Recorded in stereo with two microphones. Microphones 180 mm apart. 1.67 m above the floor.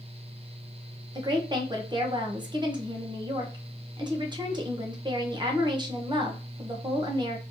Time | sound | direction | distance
1.1 | a woman speaking | 25° right (ahead or behind) | 1.0 m